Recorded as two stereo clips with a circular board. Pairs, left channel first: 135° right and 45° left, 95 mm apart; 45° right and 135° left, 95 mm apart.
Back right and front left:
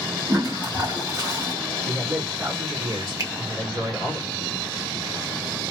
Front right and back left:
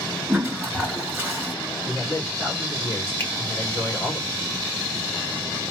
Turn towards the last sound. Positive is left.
turn(degrees=15)